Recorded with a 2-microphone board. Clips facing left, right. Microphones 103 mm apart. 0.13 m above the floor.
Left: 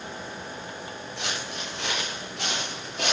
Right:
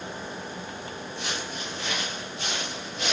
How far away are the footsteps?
About 5.5 m.